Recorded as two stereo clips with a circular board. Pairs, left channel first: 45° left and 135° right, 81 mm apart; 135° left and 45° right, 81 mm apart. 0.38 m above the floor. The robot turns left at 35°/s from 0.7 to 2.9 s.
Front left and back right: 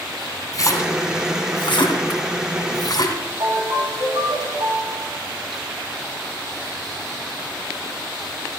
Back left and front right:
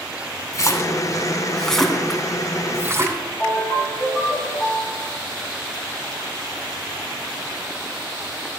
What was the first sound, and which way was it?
A splash, 85° left.